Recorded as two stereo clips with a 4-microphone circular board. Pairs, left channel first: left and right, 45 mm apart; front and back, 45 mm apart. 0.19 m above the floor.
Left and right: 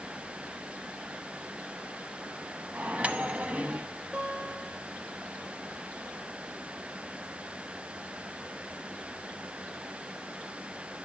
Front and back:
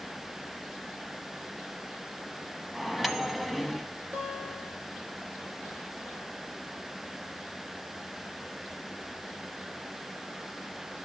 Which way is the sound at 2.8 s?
100° right.